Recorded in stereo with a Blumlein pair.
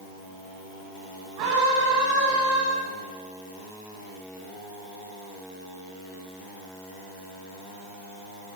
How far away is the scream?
About 9 m.